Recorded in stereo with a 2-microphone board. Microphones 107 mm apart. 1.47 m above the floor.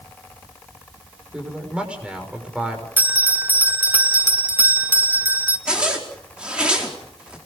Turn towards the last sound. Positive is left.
turn(degrees=-10)  # may be behind; listen again after turning